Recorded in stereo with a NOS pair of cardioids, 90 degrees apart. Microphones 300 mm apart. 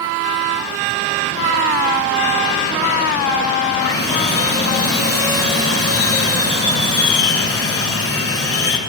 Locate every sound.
3.8 s sawing: 45° left, 1.4 m